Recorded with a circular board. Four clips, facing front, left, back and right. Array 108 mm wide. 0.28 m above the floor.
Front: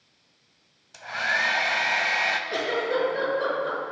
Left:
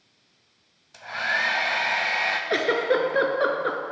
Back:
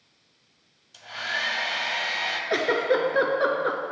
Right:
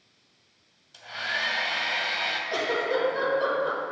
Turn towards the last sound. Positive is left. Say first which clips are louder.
# left 4 dB, back 6 dB
turn(degrees=125)